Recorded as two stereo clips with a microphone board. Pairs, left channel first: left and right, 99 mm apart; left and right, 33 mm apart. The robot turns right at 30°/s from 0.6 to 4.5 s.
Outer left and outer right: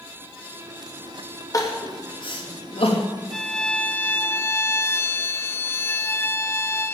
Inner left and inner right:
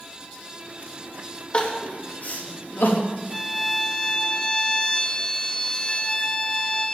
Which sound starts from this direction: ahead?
A violin, at 3.3 s.